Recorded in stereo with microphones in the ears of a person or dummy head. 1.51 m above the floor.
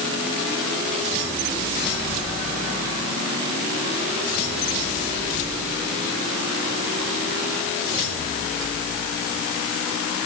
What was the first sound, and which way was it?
Only background noise.